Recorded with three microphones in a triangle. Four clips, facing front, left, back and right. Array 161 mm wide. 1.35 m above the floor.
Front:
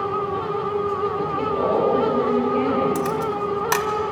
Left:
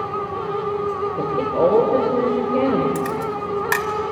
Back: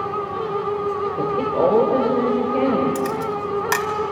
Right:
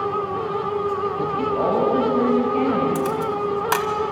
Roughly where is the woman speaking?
Behind left.